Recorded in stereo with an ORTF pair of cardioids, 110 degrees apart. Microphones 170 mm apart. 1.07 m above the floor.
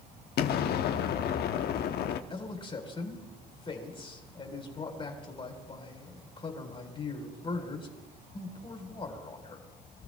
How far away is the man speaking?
About 3.5 m.